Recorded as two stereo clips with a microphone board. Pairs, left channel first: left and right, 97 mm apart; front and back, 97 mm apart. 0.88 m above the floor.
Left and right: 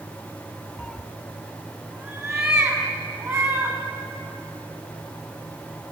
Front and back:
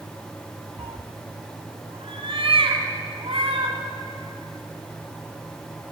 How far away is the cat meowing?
About 0.8 m.